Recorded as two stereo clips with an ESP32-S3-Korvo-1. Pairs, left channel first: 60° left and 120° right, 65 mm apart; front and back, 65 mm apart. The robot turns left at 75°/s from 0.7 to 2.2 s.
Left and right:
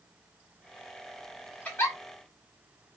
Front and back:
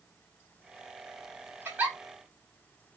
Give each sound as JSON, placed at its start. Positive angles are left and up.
{"t": 1.6, "sound": "a giggle", "azimuth_deg": 125, "distance_m": 2.5}